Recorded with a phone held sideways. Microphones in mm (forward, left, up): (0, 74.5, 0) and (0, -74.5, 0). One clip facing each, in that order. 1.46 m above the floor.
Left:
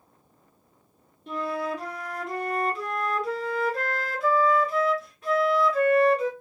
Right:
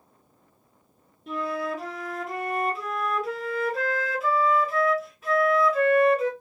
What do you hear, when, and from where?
1.3 s a flute: centre (ahead or behind), 1.0 m